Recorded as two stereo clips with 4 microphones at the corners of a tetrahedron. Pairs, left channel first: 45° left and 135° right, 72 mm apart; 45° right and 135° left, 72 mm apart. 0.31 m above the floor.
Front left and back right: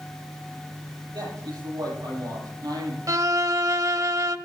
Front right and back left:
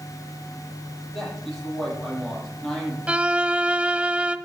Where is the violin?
155° right, 0.7 m.